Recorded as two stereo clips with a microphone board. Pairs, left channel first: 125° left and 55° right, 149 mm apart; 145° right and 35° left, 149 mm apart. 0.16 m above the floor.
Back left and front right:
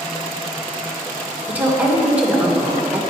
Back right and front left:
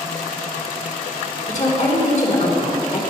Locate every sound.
1.5 s a woman speaking: 135° right, 2.5 m